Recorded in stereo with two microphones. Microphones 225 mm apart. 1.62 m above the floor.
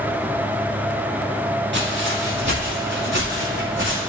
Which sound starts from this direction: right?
Footsteps, at 1.7 s.